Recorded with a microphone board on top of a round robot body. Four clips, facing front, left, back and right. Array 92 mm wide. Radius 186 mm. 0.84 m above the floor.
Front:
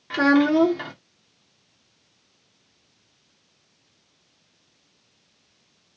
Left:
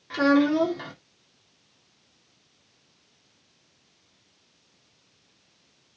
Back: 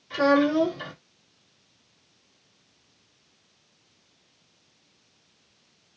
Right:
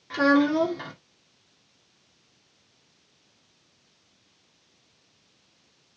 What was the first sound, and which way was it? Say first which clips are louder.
A child speaking: even, front 3 dB; straight ahead.